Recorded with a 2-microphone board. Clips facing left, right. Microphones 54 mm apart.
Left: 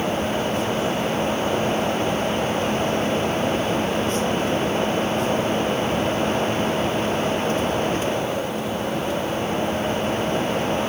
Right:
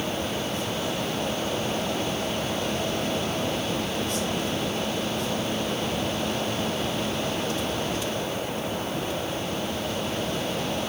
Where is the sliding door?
No sliding door in this recording.